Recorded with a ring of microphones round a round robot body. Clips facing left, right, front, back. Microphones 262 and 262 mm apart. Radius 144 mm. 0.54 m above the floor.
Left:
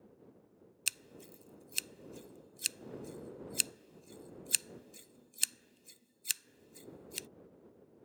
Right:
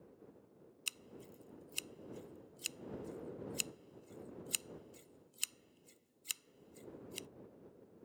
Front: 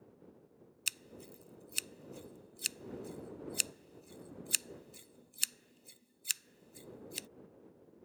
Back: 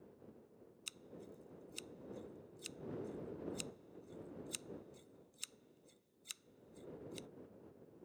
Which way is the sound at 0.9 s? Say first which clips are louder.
Even, front 1 dB; 30° left.